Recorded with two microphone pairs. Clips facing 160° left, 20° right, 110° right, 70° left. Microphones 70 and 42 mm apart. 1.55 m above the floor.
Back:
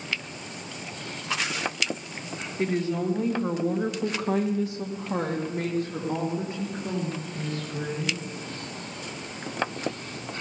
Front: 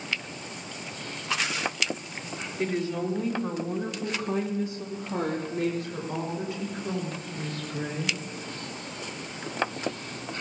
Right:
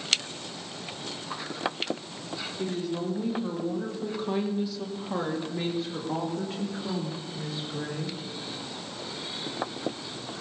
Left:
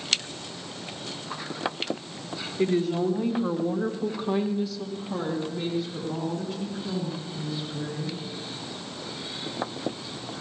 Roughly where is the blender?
No blender in this recording.